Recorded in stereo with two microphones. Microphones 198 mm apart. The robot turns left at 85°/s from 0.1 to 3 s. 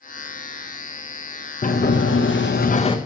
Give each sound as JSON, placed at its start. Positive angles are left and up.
{"t": 1.6, "sound": "a sliding door", "azimuth_deg": 135, "distance_m": 0.6}